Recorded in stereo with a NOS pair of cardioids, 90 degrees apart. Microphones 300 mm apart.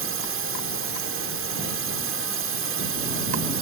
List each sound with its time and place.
0.0 s a drone: 45° right